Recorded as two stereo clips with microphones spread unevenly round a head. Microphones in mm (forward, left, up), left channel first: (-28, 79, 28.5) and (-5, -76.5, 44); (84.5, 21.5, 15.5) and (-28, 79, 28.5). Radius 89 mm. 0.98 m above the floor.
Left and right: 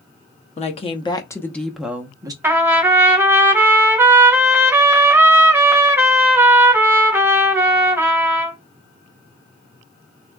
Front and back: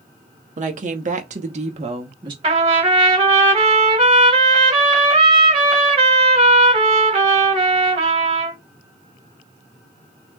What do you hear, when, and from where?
0.6 s a woman speaking: 135° left, 1.1 m; by 2.3 s 150° right, 1.0 m
2.4 s a trumpet: 160° right, 1.4 m